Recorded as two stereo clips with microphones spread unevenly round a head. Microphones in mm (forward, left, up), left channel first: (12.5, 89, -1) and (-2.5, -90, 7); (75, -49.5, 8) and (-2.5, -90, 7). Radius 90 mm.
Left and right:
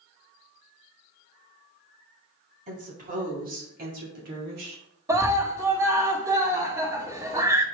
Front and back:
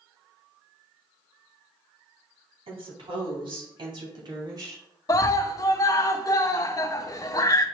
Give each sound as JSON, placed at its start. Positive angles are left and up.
{"t": 2.7, "sound": "a woman speaking", "azimuth_deg": -145, "distance_m": 4.0}
{"t": 5.1, "sound": "a scream", "azimuth_deg": -20, "distance_m": 1.7}